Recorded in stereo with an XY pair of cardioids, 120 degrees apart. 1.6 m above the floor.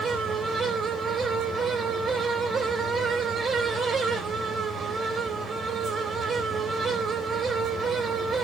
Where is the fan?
40° right, 3 m.